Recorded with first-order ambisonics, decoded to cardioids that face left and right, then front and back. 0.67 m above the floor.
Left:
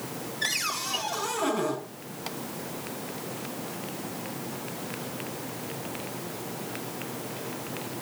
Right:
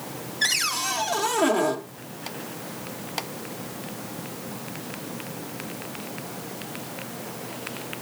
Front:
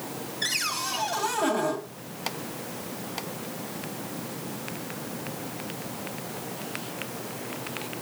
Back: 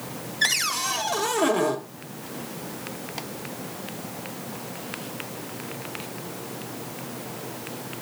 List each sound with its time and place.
0.4 s a cupboard door: 145° right, 1.7 m